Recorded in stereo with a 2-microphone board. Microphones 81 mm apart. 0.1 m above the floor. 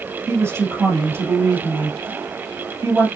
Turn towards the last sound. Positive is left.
turn(degrees=-30)  # may be behind; listen again after turning